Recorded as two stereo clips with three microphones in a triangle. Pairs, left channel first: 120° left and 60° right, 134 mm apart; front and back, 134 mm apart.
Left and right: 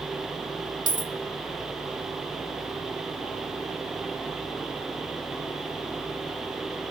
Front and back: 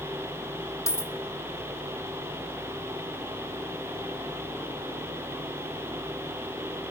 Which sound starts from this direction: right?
A dropped coin, at 0.9 s.